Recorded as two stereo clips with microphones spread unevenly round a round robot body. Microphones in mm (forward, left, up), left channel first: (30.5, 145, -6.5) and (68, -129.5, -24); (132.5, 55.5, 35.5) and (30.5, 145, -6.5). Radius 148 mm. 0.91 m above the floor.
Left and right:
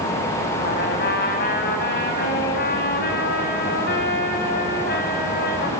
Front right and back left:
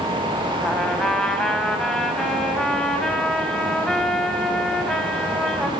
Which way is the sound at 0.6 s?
45° left.